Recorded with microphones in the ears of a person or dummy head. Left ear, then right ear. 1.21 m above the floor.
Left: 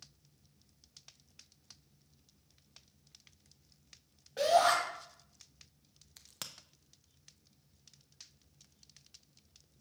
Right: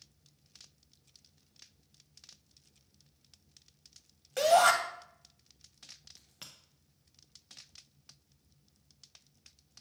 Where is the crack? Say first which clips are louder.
Left 5 dB; 35° left (ahead or behind), 0.5 m.